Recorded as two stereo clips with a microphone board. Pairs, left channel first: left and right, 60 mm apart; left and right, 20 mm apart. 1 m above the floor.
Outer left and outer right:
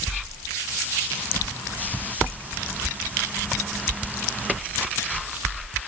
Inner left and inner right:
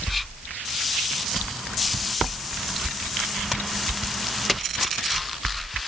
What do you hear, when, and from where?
Only background noise.